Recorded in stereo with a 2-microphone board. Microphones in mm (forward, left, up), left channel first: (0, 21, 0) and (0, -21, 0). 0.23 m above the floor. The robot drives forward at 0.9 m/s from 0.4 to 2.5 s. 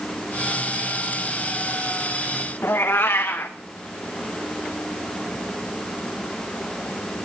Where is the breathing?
I don't hear breathing.